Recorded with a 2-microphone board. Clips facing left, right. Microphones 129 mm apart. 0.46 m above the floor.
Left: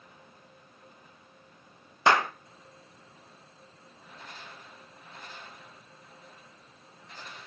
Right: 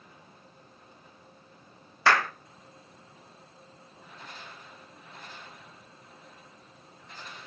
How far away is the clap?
About 0.6 m.